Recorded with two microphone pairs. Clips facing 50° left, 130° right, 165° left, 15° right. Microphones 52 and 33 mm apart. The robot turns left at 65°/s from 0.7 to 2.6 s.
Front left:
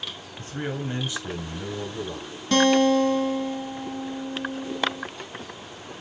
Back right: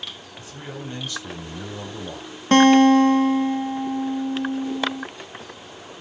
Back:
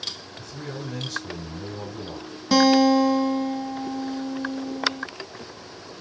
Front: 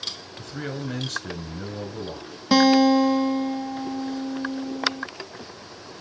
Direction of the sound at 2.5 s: 90° right.